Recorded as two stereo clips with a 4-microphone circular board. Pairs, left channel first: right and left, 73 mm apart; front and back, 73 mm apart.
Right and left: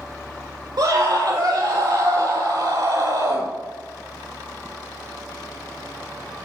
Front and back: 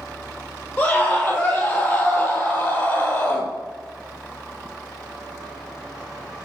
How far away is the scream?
About 7.5 m.